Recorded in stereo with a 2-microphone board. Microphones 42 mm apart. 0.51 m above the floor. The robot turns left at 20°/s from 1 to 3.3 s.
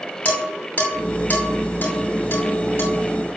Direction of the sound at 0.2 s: 35° left (ahead or behind).